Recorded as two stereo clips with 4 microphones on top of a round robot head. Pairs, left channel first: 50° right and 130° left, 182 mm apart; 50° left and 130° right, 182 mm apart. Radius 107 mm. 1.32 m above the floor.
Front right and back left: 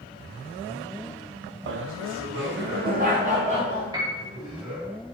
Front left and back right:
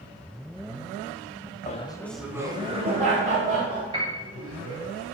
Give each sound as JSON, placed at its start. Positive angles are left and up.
{"t": 1.7, "sound": "laughter", "azimuth_deg": 100, "distance_m": 0.7}
{"t": 3.9, "sound": "a piano", "azimuth_deg": -175, "distance_m": 1.3}